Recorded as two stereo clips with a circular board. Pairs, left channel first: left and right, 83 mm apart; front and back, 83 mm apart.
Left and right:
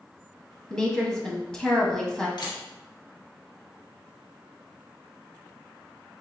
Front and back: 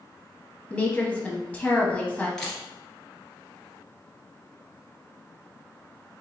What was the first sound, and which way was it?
A woman speaking, 30° left.